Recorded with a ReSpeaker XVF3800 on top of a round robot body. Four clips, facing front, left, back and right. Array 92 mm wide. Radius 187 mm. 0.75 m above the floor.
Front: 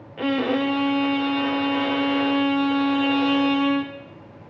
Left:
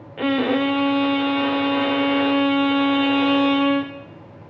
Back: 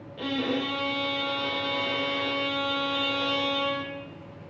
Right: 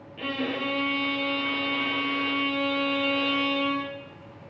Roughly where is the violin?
Ahead left.